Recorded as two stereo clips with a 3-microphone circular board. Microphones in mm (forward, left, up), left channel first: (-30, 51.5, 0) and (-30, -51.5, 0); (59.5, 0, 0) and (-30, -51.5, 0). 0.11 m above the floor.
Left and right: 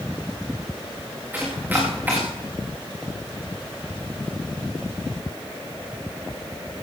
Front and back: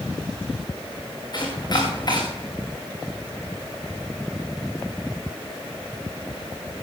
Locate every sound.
1.3 s chopping: 20° right, 6 m